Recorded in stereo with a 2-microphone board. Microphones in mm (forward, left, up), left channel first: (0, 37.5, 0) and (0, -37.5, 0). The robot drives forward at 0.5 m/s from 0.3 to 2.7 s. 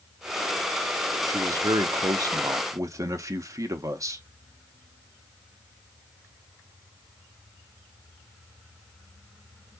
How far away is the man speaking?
About 0.7 m.